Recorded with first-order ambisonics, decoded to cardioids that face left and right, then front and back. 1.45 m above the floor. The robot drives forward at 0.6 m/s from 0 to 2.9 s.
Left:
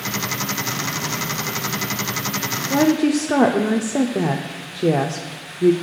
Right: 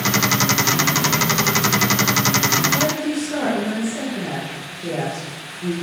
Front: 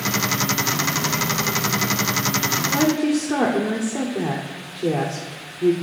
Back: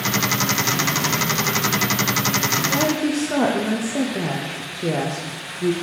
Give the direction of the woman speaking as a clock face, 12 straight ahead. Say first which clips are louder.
Left 3 dB, front 1 dB; 9 o'clock.